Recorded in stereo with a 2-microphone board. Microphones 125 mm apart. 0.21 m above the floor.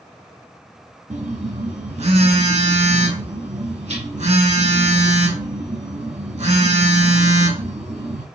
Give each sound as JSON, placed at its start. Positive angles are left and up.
{"t": 1.1, "sound": "a phone buzzing", "side_deg": -60, "distance_m": 0.7}